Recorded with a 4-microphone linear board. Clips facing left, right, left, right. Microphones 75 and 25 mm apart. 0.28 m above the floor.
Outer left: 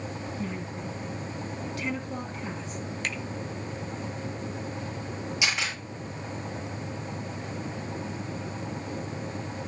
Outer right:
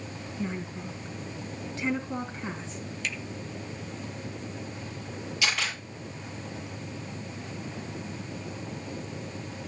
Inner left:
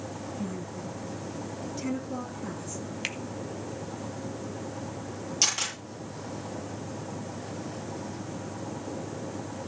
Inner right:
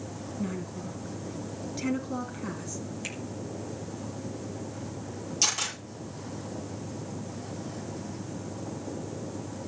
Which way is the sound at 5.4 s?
20° left (ahead or behind).